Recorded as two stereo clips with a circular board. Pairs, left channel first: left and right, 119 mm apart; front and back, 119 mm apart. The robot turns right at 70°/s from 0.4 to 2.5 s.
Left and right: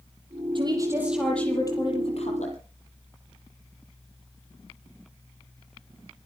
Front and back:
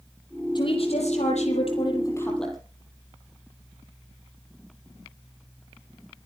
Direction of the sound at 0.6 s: 50° right.